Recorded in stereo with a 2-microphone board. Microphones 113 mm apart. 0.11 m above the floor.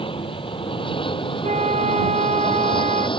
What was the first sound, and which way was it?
An aircraft, 50° left (ahead or behind).